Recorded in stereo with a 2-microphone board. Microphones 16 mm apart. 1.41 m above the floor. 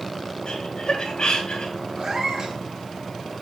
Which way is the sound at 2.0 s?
45° right (ahead or behind).